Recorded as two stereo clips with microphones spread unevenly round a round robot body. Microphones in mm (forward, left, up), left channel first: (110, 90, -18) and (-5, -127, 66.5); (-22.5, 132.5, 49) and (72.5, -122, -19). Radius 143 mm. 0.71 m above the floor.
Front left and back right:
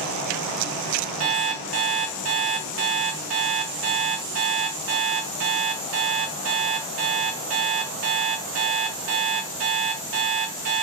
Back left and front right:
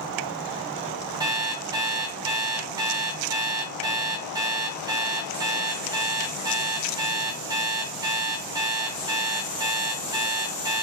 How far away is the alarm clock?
About 0.6 m.